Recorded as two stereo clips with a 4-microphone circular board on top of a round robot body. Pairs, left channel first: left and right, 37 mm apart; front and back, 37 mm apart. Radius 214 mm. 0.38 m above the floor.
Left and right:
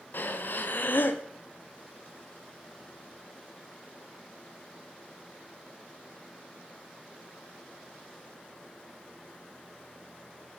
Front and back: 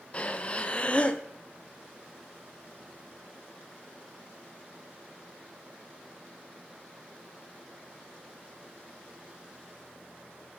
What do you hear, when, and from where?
0.1 s breathing: 65° left, 0.7 m